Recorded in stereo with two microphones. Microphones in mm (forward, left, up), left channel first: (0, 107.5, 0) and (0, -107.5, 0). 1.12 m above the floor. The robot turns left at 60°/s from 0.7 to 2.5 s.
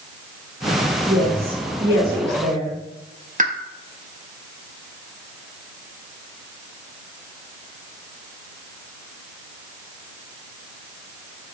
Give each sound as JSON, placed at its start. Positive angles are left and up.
{"t": 1.0, "sound": "a woman speaking", "side_deg": -65, "distance_m": 1.4}
{"t": 3.4, "sound": "a pop", "side_deg": -40, "distance_m": 0.5}